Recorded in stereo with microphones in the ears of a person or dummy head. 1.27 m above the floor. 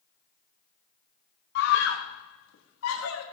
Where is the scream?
65° left (ahead or behind), 1.3 m; by 3.2 s 80° left, 2 m.